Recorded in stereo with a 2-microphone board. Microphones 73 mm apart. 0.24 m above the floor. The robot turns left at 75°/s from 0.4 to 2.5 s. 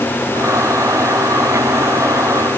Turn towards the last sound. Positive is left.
No sound to turn to.